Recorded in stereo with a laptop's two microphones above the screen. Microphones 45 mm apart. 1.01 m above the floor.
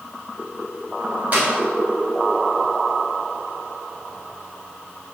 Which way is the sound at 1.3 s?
30° right (ahead or behind).